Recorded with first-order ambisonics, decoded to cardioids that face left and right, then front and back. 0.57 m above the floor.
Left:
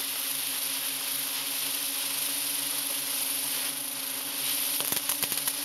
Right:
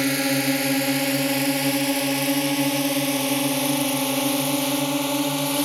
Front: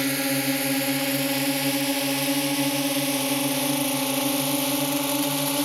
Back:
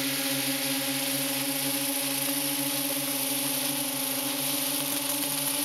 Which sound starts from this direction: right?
A drone, at 0.0 s.